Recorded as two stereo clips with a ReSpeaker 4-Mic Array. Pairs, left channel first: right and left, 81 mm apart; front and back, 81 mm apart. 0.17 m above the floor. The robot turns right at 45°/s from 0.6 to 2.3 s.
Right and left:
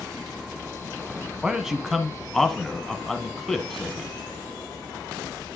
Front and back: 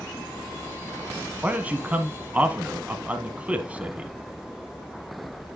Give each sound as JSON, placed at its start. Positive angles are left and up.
{"t": 1.4, "sound": "a man speaking", "azimuth_deg": 155, "distance_m": 1.0}